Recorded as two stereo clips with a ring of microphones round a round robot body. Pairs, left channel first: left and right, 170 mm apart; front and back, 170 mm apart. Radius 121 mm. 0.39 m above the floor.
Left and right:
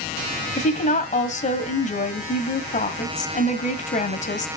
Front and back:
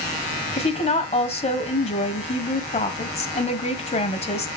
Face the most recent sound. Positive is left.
turn(degrees=50)